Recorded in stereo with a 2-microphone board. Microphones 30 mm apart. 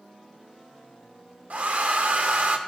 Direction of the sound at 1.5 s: 60° right (ahead or behind).